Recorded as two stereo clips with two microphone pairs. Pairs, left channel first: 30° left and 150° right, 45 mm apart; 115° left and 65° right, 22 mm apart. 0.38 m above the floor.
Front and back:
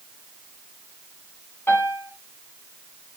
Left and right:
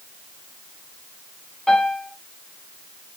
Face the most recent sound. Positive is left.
turn(degrees=50)